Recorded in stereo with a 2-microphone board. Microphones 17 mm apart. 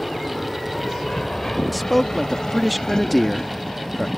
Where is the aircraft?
40° left (ahead or behind).